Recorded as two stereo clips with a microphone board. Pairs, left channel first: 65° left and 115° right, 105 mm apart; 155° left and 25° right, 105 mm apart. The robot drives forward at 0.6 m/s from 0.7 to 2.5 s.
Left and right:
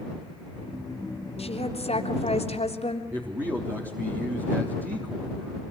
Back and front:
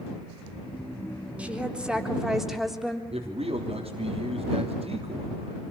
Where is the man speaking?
45° right, 3 m.